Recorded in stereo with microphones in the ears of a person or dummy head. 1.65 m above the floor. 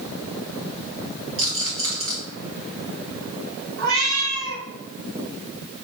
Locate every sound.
1.4 s a rattle: 70° right (ahead or behind), 1.7 m
3.8 s a cat meowing: 55° right (ahead or behind), 1.7 m